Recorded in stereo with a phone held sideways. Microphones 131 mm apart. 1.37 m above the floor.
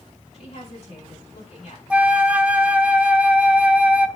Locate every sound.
0.3 s a woman speaking: 55° left (ahead or behind), 7.5 m
1.9 s a flute: 10° right (ahead or behind), 0.7 m